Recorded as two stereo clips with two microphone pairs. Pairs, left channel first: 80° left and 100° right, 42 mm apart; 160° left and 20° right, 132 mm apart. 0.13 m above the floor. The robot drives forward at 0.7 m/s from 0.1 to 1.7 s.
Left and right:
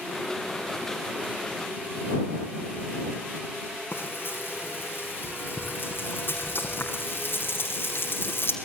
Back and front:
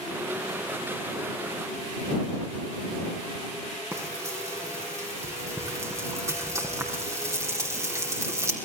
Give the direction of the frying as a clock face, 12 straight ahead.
10 o'clock.